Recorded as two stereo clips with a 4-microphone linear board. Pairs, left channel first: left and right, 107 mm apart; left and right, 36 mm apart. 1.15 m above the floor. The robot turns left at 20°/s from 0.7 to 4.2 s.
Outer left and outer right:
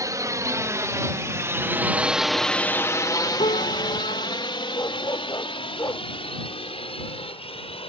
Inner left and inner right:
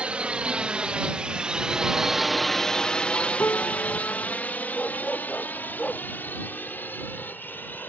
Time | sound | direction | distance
0.0 | a drone | 35° right (ahead or behind) | ?
3.4 | a piano | 70° left (ahead or behind) | ?
4.7 | a dog barking | 35° left (ahead or behind) | ?